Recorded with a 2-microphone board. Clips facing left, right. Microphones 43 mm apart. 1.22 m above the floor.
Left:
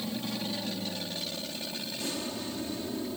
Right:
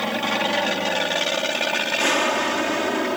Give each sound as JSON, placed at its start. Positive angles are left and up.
{"t": 0.0, "sound": "an aircraft", "side_deg": -60}